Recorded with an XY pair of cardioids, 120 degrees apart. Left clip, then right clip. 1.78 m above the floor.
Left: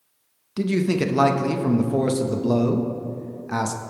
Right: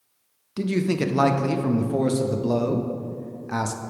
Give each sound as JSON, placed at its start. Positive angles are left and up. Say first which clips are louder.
{"t": 0.6, "sound": "a man speaking", "louder": "left 2 dB", "azimuth_deg": 0, "distance_m": 0.5}